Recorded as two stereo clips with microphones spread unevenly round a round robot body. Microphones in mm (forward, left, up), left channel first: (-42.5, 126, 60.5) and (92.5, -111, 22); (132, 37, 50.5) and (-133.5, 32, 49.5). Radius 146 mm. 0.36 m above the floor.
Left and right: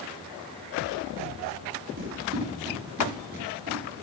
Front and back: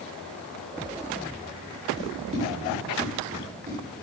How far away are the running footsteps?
About 8 m.